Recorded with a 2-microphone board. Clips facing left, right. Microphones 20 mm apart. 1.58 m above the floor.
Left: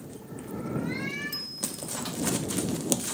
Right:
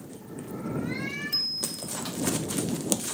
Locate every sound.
1.3 s a bicycle bell: 45° right (ahead or behind)